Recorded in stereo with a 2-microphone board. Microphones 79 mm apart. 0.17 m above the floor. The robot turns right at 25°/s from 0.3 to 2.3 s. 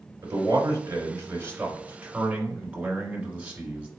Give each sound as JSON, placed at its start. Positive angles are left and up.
{"t": 0.2, "sound": "a man speaking", "azimuth_deg": -75, "distance_m": 1.8}